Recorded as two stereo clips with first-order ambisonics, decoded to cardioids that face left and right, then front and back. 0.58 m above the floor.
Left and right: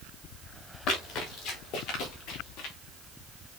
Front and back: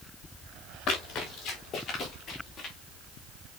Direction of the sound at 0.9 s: 50° left.